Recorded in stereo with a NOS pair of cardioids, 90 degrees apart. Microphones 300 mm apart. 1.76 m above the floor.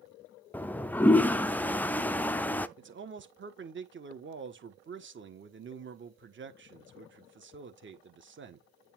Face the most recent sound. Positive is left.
turn(degrees=-40)